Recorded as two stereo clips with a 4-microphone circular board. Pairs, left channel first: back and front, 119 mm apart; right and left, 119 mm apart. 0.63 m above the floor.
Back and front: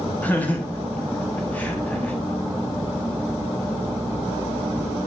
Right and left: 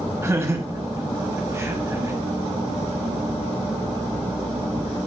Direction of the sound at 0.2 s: 120° left.